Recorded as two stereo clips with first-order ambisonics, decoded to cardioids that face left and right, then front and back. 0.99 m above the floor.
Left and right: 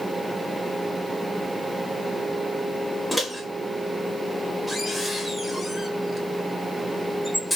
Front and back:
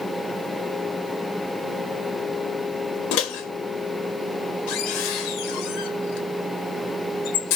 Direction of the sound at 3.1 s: Straight ahead.